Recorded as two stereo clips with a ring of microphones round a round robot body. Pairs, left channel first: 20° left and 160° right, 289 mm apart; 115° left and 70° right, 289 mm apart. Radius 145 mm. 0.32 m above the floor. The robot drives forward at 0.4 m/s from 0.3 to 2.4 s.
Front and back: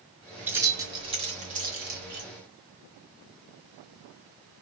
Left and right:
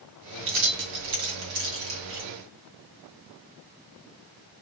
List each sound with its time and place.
0.5 s keys jangling: 75° right, 1.4 m; by 2.3 s 110° right, 1.4 m